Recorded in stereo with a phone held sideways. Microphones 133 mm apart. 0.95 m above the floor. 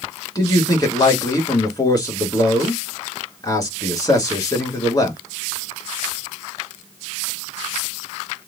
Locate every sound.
0.3 s a man speaking: 30° left (ahead or behind), 2.5 m